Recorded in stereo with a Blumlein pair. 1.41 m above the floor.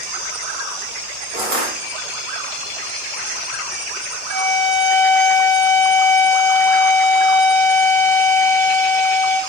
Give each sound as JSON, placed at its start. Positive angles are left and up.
{"t": 1.3, "sound": "crushing", "azimuth_deg": -40, "distance_m": 1.3}
{"t": 4.3, "sound": "a violin", "azimuth_deg": -55, "distance_m": 1.4}